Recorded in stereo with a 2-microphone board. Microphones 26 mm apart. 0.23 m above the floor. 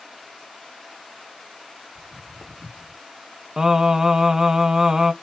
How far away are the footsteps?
About 2 m.